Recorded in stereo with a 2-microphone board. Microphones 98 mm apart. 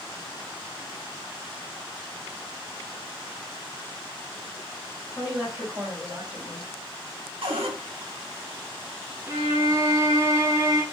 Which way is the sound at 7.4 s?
70° right (ahead or behind).